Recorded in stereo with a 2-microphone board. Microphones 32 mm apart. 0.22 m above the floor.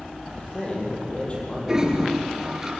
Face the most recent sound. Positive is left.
turn(degrees=-15)  # may be behind; listen again after turning